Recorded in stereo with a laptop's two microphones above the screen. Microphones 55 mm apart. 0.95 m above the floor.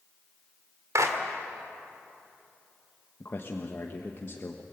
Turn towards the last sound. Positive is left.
turn(degrees=45)  # may be behind; listen again after turning